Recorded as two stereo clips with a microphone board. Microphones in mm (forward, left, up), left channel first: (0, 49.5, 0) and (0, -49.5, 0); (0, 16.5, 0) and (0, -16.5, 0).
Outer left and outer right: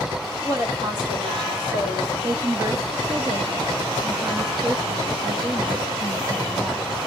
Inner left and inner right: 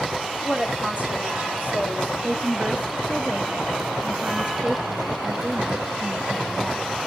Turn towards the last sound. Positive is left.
turn(degrees=-30)  # may be behind; listen again after turning